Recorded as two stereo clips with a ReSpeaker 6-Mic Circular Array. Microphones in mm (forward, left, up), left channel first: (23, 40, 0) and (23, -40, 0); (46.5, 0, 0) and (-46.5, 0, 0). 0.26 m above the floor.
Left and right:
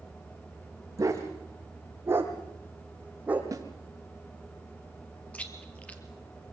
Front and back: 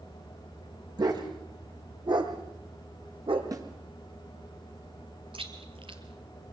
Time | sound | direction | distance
1.0 | a dog barking | 140° right | 5.5 m
3.5 | a snare drum | 135° right | 4 m
5.3 | chewing | 165° left | 3 m